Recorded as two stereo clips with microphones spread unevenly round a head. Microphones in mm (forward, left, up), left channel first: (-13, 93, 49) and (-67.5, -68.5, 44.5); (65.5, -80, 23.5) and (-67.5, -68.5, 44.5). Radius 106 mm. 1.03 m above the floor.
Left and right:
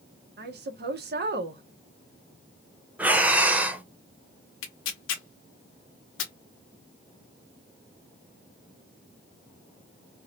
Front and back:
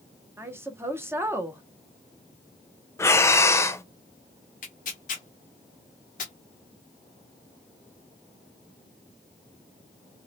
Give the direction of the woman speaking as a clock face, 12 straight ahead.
4 o'clock.